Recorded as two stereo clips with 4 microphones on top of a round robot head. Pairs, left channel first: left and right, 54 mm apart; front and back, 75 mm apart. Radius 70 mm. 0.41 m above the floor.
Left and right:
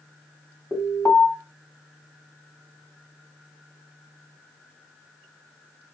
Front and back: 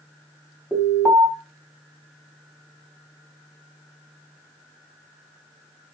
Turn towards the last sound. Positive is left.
turn(degrees=135)